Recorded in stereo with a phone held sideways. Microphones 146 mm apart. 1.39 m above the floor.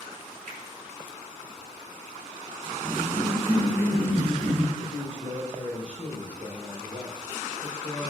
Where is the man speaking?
80° right, 4.5 m.